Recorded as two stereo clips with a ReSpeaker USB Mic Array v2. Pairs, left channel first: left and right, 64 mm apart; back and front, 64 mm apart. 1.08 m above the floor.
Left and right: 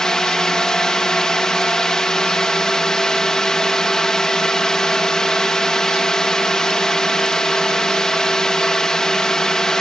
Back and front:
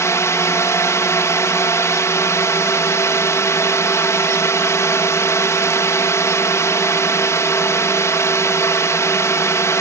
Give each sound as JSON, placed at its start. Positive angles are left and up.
{"t": 0.0, "sound": "a drone", "azimuth_deg": 165}